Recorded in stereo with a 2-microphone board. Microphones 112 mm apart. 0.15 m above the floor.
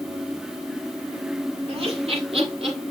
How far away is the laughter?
About 5 m.